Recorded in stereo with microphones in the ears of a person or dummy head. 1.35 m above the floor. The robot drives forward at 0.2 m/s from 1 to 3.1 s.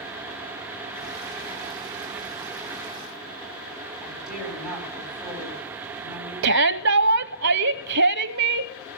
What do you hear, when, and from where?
4.0 s a woman speaking: centre (ahead or behind), 9.5 m
6.4 s a shout: 75° right (ahead or behind), 0.6 m